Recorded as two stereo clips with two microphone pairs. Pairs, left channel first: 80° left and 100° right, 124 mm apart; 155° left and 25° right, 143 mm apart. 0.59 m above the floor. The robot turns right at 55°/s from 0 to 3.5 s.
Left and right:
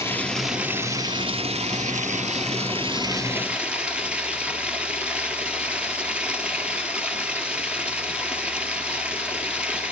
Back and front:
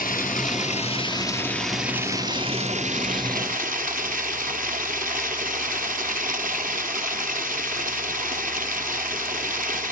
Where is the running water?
145° left, 1.7 m; by 9.9 s 20° right, 1.7 m.